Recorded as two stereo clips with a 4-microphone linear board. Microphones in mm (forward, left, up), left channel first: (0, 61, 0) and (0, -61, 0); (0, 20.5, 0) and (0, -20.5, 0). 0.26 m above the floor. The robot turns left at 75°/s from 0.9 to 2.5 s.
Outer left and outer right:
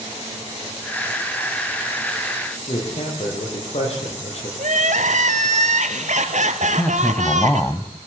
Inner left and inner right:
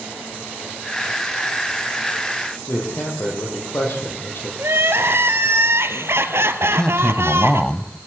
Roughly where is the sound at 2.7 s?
Left.